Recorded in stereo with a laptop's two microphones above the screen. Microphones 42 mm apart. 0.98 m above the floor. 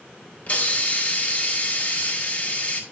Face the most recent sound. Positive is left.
turn(degrees=35)  # may be behind; listen again after turning